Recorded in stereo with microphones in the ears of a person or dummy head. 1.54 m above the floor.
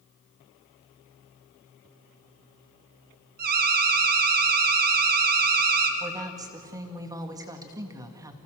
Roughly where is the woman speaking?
Centre.